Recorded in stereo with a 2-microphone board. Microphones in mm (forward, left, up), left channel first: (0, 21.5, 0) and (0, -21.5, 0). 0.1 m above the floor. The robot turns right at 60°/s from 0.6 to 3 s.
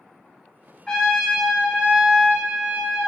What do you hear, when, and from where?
0.9 s a trumpet: 155° left, 2 m; by 3.1 s 75° right, 2 m